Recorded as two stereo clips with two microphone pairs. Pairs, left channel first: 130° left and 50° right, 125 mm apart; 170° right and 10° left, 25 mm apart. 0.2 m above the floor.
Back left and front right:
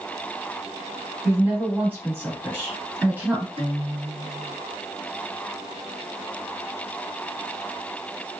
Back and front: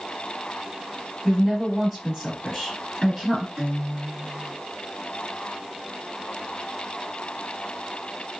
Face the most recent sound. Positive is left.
turn(degrees=-45)